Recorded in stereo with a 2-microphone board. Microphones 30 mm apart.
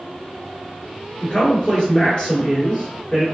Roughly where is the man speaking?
Left.